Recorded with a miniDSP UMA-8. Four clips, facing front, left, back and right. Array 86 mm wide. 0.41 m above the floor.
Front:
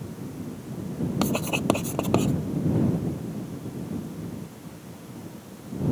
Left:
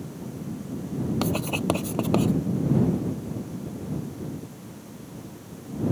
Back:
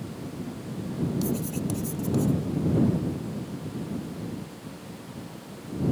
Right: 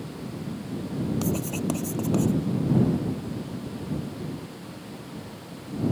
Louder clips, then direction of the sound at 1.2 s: Left 2 dB, front 5 dB; 25° left.